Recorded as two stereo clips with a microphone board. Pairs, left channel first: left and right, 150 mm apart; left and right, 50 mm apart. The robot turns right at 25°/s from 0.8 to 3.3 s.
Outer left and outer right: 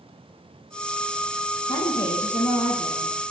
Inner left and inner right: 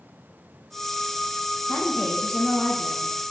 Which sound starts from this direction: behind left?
A woman speaking, at 1.7 s.